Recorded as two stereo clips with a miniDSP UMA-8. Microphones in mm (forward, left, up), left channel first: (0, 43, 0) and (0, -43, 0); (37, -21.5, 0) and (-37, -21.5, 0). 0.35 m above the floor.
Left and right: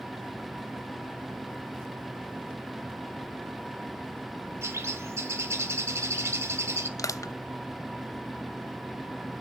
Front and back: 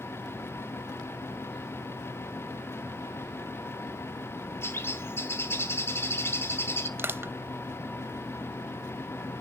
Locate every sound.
4.6 s a bird: 45° right, 1.7 m
7.0 s crushing: 130° left, 0.6 m